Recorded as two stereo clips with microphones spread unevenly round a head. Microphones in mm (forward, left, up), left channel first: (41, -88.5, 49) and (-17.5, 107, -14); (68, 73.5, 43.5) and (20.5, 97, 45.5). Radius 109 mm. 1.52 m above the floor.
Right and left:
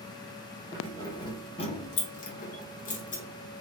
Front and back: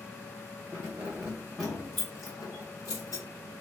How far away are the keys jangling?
About 0.9 m.